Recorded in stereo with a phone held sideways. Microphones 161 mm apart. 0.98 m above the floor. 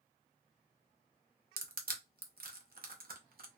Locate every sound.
1.6 s crushing: 65° right (ahead or behind), 0.6 m